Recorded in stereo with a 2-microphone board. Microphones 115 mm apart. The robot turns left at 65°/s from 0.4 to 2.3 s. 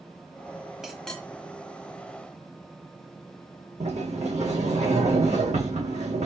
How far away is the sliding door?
About 2.5 m.